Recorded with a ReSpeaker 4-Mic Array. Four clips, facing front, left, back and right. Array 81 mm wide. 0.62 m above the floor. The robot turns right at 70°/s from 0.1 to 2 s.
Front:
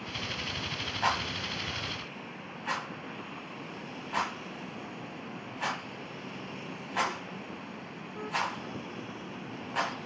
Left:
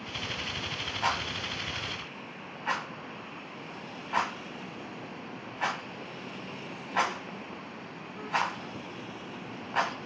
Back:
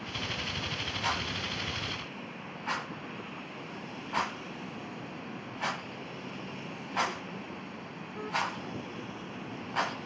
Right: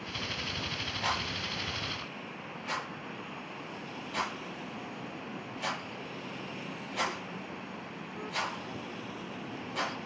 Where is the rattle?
15° left, 1.2 m; by 10.0 s 80° left, 1.2 m.